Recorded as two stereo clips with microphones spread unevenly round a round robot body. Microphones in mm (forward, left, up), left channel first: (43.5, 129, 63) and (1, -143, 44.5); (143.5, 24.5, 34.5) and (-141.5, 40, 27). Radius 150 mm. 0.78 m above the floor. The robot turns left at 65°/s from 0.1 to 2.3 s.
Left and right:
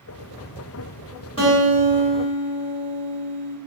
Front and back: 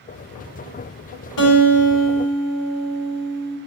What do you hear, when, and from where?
1.4 s a guitar: 10° left, 1.8 m; by 3.6 s 50° right, 1.8 m